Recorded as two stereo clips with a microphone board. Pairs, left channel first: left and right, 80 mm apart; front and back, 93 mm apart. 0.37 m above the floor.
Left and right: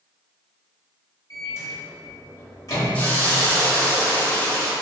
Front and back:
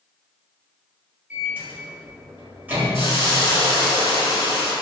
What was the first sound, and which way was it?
A microwave, 115° left.